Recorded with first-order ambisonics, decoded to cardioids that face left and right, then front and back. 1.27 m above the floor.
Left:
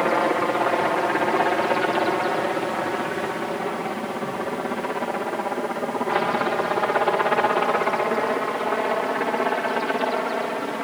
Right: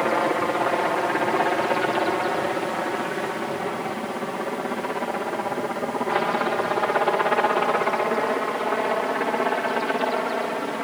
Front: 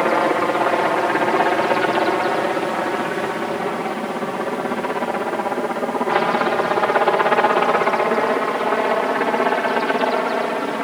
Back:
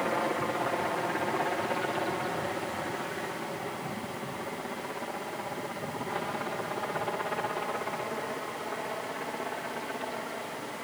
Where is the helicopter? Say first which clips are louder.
Left 1 dB, front 12 dB; 5° left; by 10.8 s straight ahead.